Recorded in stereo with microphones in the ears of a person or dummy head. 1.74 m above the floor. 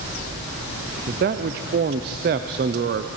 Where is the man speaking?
30° right (ahead or behind), 0.5 m.